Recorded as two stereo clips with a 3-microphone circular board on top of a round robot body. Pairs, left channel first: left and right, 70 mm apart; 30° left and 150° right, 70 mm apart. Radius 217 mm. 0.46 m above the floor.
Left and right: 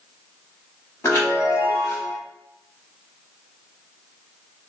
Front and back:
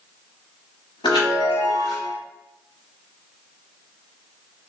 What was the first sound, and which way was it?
A chime, 30° left.